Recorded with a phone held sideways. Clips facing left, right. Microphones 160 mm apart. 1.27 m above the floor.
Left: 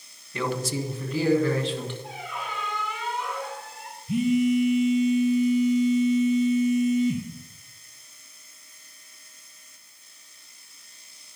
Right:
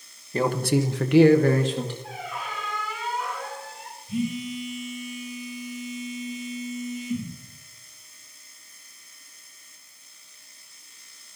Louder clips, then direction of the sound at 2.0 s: Right 1 dB; centre (ahead or behind).